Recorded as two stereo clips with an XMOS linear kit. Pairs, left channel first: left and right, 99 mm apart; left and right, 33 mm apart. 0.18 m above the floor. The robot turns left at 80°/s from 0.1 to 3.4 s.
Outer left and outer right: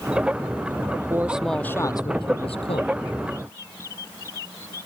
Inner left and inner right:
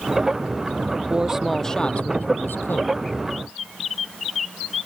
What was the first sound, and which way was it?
A man speaking, 150° right.